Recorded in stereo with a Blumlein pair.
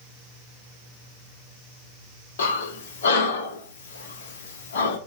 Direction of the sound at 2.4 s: 60° left.